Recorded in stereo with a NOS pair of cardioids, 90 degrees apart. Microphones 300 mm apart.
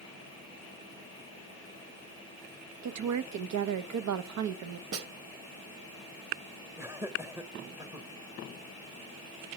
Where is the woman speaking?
65° right, 1.0 m.